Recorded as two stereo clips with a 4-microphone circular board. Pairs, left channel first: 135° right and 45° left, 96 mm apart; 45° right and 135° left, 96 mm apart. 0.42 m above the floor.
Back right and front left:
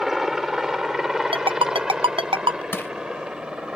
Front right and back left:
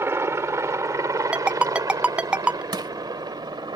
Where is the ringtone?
55° left.